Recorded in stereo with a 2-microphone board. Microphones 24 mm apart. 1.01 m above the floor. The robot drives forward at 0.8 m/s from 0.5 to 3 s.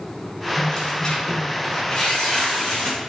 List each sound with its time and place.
0.6 s tearing paper: 35° left (ahead or behind), 3.5 m; by 3.1 s 25° left (ahead or behind), 5.5 m